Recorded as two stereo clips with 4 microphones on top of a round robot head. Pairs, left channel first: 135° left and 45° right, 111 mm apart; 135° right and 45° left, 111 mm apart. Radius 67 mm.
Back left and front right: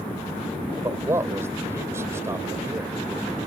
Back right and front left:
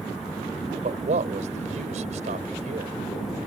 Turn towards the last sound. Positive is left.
turn(degrees=20)